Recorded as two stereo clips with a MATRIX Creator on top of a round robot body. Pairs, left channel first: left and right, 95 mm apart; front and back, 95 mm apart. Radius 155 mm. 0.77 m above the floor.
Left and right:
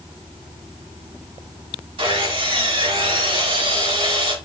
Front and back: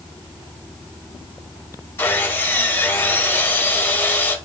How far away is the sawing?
About 4 m.